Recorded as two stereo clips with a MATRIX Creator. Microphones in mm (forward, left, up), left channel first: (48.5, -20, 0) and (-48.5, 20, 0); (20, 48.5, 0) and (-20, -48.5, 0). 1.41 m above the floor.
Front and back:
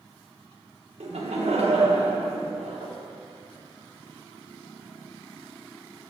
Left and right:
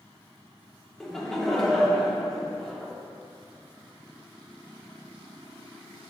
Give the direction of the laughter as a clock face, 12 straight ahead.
7 o'clock.